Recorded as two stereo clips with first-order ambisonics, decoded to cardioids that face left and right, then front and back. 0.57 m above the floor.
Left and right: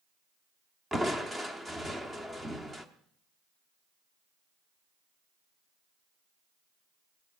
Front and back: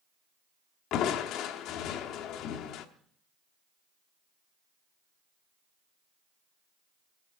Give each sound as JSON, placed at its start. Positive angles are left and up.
{"t": 0.9, "sound": "crushing", "azimuth_deg": -10, "distance_m": 0.9}